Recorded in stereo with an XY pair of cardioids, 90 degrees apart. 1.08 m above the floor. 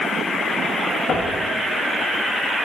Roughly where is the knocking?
Ahead left.